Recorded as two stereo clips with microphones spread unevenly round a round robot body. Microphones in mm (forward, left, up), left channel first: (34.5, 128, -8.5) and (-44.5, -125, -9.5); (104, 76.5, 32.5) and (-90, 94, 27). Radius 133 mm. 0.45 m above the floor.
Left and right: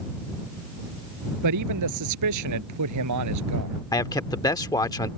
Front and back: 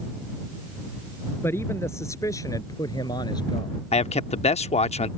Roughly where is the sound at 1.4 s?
Right.